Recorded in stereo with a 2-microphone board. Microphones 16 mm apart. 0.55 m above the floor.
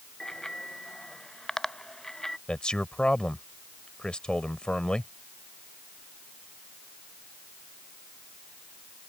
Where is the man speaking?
55° left (ahead or behind).